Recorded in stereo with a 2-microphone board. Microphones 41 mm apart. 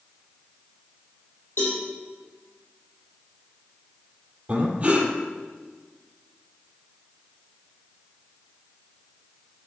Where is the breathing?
25° right (ahead or behind), 2 m.